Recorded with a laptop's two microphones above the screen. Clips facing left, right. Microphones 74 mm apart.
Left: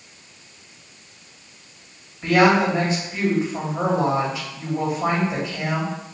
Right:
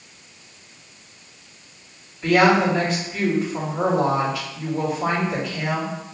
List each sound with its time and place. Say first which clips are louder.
2.2 s a woman speaking: even; 20° left (ahead or behind), 2 m